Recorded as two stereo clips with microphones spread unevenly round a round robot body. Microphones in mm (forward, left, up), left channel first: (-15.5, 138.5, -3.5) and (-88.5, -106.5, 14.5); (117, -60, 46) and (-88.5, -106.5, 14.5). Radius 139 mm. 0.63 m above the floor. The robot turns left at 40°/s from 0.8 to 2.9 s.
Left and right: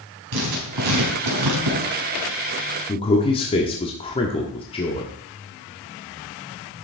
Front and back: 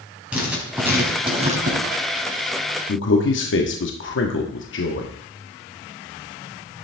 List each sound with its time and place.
0.3 s writing: 85° right, 4.5 m; by 1.8 s 125° right, 4.5 m
2.9 s a man speaking: 15° left, 1.4 m